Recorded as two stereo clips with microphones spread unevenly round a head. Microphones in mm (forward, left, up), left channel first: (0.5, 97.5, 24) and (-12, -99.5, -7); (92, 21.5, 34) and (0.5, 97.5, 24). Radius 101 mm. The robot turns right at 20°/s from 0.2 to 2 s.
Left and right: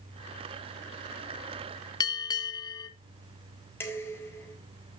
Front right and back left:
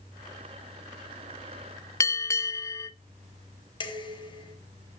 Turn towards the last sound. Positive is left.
turn(degrees=10)